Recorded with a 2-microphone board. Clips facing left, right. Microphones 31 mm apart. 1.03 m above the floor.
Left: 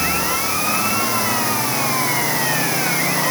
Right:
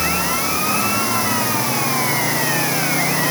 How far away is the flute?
I don't hear a flute.